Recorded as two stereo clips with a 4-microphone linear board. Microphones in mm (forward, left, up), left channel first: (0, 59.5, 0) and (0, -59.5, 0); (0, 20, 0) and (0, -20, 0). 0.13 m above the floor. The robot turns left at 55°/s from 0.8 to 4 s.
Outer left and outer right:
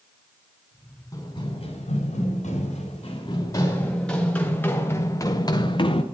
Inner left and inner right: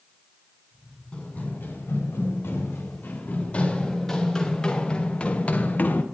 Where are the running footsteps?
30° left (ahead or behind), 3 m; by 6.0 s 50° left (ahead or behind), 0.9 m.